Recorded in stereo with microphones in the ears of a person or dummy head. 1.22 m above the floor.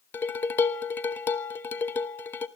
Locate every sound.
0.1 s dishes clattering: 5° left (ahead or behind), 0.9 m